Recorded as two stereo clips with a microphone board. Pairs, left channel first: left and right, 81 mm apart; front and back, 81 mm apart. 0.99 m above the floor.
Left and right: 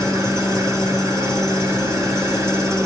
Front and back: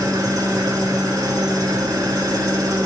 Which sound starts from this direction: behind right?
An engine running, at 0.0 s.